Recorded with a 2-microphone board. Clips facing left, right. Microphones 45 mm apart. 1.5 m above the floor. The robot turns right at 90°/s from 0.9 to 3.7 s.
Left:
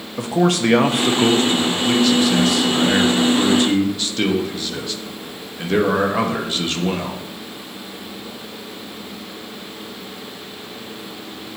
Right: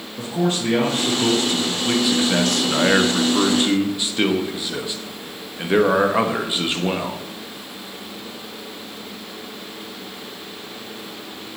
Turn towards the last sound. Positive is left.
turn(degrees=-20)